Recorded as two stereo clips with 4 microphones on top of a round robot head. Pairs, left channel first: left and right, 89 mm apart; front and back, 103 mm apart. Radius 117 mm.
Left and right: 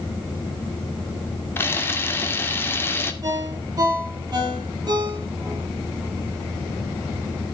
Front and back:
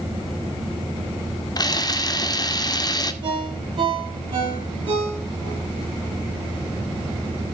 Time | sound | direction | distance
1.6 | a camera shutter | 35° left | 2.0 m
3.2 | a ringtone | 135° right | 7 m